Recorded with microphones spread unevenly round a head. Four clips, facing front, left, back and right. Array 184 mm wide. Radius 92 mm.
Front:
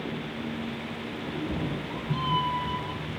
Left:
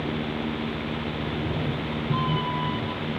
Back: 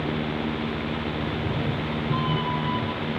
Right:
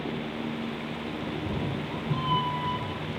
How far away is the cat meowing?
About 7 m.